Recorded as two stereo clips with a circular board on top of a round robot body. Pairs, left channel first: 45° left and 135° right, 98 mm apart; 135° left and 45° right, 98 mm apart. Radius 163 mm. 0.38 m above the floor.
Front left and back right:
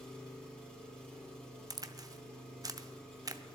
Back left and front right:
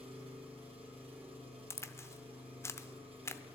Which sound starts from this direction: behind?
A crack, at 1.7 s.